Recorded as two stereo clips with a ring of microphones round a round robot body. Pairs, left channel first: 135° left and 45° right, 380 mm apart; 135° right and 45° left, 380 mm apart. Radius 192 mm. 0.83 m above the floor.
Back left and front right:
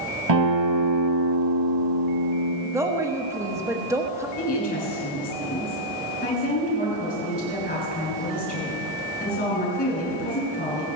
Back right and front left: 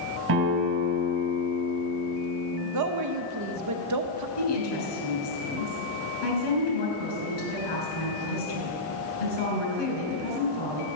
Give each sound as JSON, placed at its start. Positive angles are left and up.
{"t": 0.3, "sound": "a guitar", "azimuth_deg": -10, "distance_m": 2.5}
{"t": 2.6, "sound": "a woman speaking", "azimuth_deg": 35, "distance_m": 1.1}
{"t": 4.4, "sound": "a woman speaking", "azimuth_deg": -155, "distance_m": 6.0}